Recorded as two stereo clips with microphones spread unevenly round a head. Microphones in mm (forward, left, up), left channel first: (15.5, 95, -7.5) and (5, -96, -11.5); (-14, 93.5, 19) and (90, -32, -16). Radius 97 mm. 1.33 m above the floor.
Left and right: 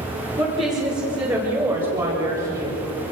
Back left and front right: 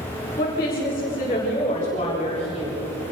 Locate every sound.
0.4 s a woman speaking: 160° right, 5 m; by 2.7 s 165° right, 7.5 m